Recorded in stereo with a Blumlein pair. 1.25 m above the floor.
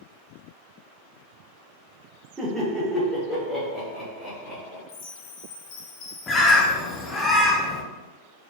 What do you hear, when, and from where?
2.4 s laughter: 15° right, 1.4 m; by 4.8 s 25° left, 2.5 m
4.9 s a chime: 45° left, 0.7 m
6.3 s a bird: 15° left, 0.7 m